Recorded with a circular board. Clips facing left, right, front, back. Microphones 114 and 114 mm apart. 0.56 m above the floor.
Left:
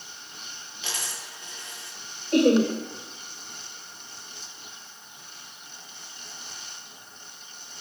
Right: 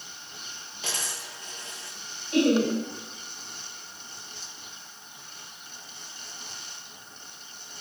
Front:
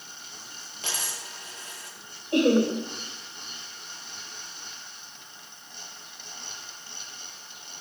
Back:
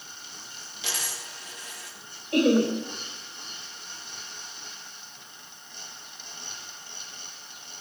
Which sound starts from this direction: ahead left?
Laughter, at 2.3 s.